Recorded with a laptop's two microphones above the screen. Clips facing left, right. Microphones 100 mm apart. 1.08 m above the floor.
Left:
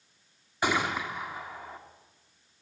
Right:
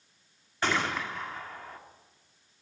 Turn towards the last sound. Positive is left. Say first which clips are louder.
# left 1 dB
turn(degrees=10)  # may be behind; listen again after turning